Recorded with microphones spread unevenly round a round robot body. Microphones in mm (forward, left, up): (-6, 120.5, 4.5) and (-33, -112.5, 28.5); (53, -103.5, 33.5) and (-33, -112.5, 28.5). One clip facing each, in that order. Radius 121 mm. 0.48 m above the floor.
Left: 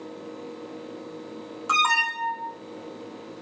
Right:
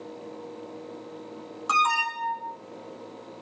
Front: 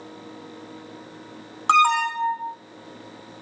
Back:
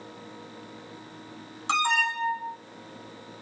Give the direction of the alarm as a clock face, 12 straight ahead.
12 o'clock.